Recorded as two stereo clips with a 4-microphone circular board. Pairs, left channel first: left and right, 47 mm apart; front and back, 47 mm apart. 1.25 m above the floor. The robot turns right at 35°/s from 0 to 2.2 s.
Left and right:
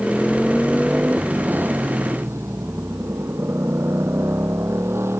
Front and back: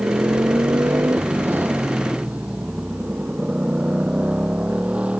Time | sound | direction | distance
0.0 | a motorcycle | 170° left | ?